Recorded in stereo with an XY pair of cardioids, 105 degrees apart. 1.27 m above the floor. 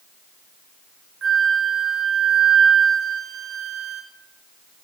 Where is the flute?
55° right, 1.2 m.